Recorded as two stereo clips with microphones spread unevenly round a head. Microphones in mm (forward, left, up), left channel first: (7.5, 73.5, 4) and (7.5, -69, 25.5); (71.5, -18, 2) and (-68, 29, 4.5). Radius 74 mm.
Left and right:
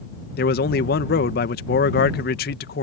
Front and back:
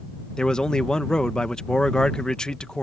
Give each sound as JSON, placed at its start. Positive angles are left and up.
{"t": 0.4, "sound": "a man speaking", "azimuth_deg": 65}